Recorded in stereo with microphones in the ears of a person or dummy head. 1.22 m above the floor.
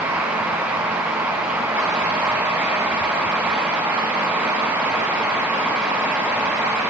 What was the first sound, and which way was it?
Only background noise.